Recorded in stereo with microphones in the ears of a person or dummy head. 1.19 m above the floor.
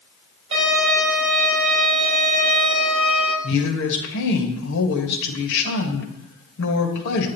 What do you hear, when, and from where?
0.5 s a violin: 30° right (ahead or behind), 4.5 m
3.4 s a woman speaking: 65° left (ahead or behind), 1.5 m